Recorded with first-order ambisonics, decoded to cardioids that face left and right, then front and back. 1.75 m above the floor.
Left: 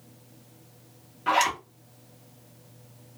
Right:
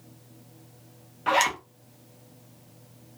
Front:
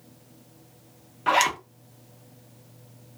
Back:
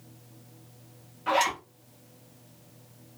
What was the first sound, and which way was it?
A zipper, 25° right.